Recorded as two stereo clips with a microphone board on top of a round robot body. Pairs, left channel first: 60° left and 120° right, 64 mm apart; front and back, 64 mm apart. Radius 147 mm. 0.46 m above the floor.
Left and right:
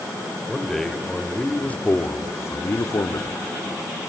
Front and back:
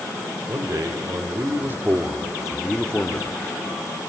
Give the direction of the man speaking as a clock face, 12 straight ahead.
7 o'clock.